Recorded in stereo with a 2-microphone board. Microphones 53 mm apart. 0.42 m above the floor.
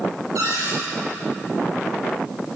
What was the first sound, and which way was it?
A cupboard door, 75° right (ahead or behind).